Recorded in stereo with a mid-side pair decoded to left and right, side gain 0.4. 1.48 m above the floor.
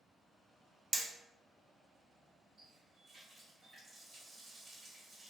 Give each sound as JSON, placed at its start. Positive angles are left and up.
{"t": 0.9, "sound": "hammering", "azimuth_deg": -25, "distance_m": 0.5}
{"t": 2.6, "sound": "a running tap", "azimuth_deg": -50, "distance_m": 1.4}